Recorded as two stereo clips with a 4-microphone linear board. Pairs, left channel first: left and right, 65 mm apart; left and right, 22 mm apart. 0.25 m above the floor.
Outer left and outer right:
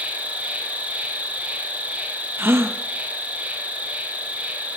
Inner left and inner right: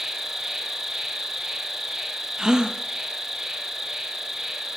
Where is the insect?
25° right (ahead or behind), 1.5 m.